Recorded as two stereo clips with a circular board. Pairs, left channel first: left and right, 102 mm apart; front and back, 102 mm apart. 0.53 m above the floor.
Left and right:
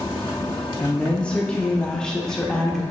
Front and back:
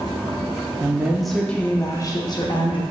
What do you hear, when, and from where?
0.8 s a woman speaking: 150° left, 0.6 m; by 2.8 s 5° left, 1.0 m